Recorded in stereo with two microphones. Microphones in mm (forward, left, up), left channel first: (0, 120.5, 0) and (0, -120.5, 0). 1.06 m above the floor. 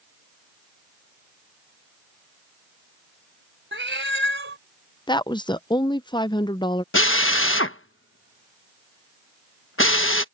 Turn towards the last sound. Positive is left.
turn(degrees=60)  # may be behind; listen again after turning